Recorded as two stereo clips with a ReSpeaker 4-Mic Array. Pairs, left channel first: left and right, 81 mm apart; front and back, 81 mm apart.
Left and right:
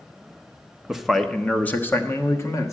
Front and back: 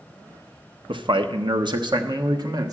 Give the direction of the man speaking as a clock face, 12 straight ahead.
6 o'clock.